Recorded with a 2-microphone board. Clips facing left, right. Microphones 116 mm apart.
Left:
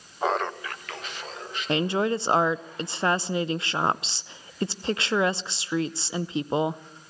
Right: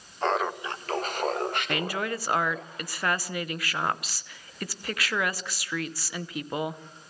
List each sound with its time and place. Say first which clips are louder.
0.2 s laughter: even; 10° left (ahead or behind), 1.0 m; by 2.7 s 75° right (ahead or behind), 3.5 m
1.7 s a woman speaking: left 6 dB; 25° left (ahead or behind), 0.7 m